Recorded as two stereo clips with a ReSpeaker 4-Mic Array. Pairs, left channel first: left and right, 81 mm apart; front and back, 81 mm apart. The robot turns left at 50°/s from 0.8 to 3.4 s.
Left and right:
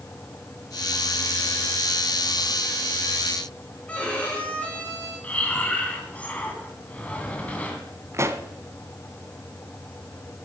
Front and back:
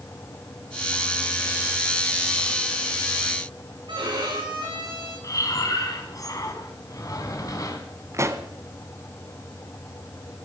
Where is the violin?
165° left, 4 m.